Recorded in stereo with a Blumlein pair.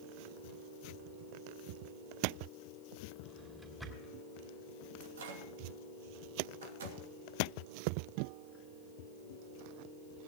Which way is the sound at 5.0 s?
60° right.